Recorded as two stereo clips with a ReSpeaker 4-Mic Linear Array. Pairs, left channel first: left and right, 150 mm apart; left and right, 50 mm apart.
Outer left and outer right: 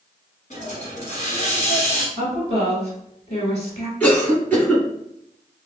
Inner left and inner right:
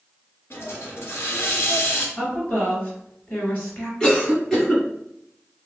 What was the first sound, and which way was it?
A hiss, 55° left (ahead or behind).